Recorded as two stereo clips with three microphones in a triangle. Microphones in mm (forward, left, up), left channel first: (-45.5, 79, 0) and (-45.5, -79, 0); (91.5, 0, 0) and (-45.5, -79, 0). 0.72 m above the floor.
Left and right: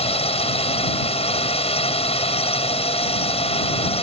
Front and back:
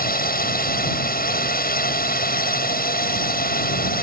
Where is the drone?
40° left.